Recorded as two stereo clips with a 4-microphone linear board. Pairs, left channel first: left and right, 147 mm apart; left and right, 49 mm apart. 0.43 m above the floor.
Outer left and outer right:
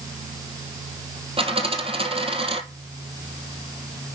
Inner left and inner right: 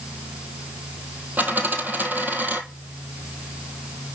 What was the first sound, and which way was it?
A dropped coin, 40° right (ahead or behind).